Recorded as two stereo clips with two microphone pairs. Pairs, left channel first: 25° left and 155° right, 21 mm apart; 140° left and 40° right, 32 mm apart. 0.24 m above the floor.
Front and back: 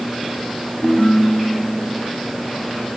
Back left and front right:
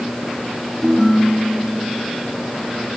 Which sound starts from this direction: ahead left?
A ringtone, at 0.8 s.